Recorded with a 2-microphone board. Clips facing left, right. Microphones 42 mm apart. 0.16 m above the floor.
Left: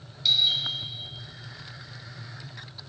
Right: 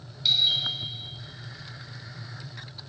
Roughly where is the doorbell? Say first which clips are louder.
Even; centre.